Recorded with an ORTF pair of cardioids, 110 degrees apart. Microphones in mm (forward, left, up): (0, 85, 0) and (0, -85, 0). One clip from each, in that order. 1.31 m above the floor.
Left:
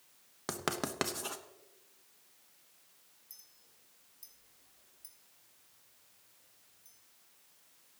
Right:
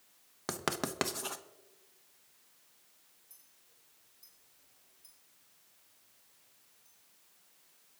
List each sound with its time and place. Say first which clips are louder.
0.5 s writing: right 1 dB; 10° right, 1.0 m
3.3 s a clink: left 9 dB; 45° left, 3 m